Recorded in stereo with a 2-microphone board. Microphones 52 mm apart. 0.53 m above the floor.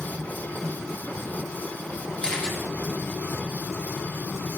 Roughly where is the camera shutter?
Centre.